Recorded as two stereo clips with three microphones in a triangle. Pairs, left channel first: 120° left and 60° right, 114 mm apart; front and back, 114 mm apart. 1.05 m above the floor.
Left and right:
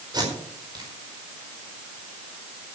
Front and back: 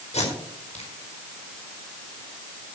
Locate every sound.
0.1 s tape being pulled: 10° right, 5 m